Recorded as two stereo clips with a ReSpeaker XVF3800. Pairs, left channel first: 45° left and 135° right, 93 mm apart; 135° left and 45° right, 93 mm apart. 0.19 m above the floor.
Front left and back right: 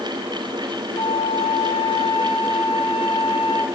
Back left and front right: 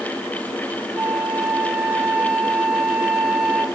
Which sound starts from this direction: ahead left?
A flute, at 0.9 s.